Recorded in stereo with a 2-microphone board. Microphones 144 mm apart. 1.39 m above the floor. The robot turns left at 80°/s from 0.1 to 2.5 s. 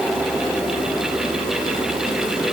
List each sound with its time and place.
Only background noise.